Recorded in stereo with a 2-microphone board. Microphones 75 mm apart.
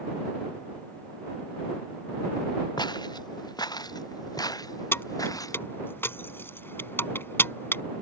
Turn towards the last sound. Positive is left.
turn(degrees=30)  # may be behind; listen again after turning